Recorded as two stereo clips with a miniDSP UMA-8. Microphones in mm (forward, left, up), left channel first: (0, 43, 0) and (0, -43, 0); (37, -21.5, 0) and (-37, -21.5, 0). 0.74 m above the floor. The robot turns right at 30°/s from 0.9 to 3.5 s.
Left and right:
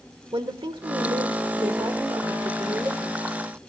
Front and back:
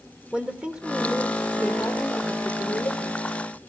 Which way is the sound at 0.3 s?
105° right.